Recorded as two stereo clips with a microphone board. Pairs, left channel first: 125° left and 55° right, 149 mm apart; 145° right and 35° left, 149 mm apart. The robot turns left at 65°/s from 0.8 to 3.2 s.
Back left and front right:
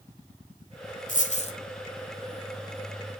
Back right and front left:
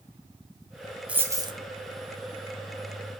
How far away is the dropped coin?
About 1.2 m.